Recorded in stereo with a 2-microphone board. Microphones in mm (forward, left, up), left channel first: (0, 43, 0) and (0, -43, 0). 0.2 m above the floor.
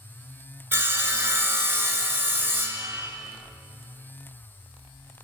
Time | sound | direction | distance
0.7 | sawing | 25° right (ahead or behind) | 0.6 m